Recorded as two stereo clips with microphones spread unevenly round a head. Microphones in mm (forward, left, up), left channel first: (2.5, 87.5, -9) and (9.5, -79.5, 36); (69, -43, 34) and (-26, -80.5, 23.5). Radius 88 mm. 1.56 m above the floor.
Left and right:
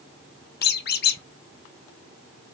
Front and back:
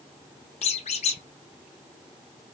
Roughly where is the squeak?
Ahead left.